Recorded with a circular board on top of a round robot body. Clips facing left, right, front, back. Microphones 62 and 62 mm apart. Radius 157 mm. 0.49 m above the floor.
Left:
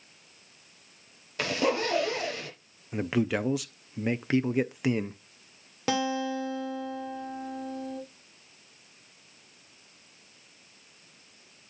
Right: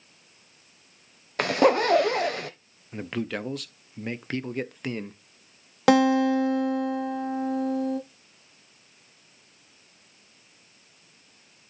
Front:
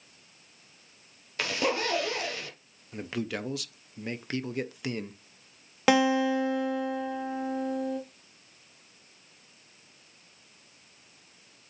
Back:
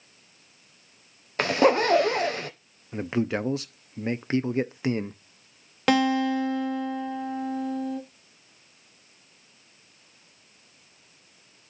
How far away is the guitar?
About 1.6 m.